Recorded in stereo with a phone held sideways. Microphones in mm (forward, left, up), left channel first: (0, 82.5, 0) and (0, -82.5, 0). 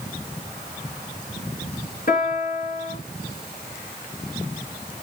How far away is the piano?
About 3 m.